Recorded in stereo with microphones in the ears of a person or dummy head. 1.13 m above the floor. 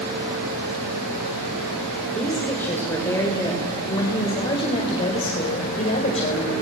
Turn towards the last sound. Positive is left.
turn(degrees=35)  # may be behind; listen again after turning